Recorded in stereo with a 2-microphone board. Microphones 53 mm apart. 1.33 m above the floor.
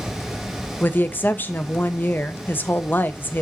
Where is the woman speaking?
40° left (ahead or behind), 1.0 m.